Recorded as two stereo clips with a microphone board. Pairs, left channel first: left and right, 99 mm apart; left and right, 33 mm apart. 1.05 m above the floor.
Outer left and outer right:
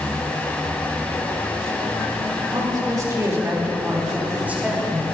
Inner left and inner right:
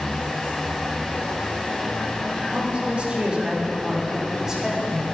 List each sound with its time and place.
2.5 s a woman speaking: 45° right (ahead or behind), 3 m; by 5.0 s 10° right (ahead or behind), 4 m